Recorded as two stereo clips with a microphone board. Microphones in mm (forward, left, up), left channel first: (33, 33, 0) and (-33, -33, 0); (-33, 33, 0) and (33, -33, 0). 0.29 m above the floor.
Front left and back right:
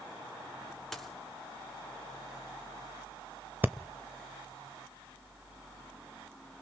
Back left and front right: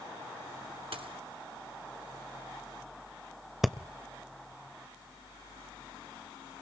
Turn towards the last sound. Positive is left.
turn(degrees=-125)